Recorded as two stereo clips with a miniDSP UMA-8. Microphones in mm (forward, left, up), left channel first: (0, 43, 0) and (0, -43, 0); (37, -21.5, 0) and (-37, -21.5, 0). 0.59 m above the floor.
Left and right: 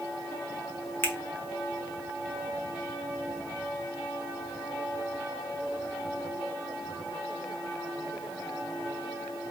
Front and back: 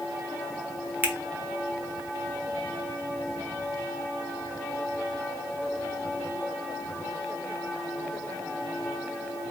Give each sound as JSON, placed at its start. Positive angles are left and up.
{"t": 1.0, "sound": "a finger snap", "azimuth_deg": 130, "distance_m": 0.6}